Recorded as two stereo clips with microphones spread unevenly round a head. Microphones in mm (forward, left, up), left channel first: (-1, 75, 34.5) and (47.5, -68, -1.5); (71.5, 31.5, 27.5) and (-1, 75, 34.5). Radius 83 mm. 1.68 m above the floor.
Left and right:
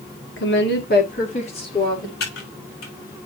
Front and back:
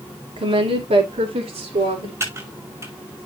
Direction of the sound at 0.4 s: 130° left.